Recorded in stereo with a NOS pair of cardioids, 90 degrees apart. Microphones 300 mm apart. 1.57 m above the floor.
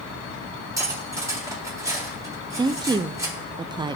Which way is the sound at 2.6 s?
15° right.